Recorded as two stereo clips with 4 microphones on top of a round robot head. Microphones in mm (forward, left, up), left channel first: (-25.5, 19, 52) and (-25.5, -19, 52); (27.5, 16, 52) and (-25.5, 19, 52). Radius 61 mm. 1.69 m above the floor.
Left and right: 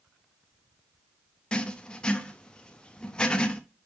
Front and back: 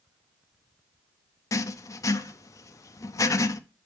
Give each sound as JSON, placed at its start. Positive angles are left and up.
{"t": 1.5, "sound": "writing", "azimuth_deg": 15, "distance_m": 0.7}